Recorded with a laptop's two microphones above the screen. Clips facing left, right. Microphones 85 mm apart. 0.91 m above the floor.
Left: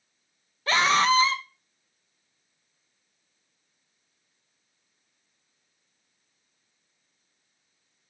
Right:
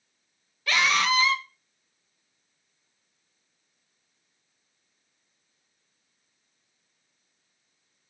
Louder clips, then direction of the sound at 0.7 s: Left 3 dB; 35° left (ahead or behind).